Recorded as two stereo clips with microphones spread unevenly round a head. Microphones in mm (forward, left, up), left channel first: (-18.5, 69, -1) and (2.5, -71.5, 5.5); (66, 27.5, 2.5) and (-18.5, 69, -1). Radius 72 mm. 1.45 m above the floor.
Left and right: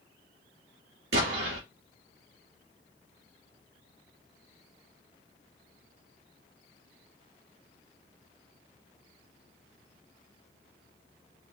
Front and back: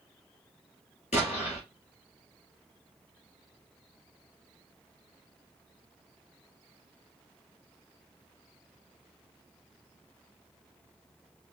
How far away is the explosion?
About 3.5 m.